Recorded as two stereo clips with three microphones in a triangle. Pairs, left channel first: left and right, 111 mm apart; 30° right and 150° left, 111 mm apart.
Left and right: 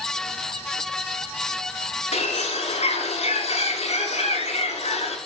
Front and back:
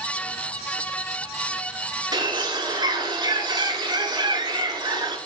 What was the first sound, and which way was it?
A bird, 100° left.